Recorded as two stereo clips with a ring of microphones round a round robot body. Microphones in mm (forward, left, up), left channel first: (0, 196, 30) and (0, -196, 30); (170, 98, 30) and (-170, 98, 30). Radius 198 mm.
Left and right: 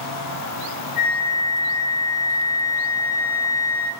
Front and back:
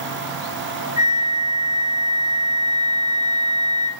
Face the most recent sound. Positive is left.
turn(degrees=105)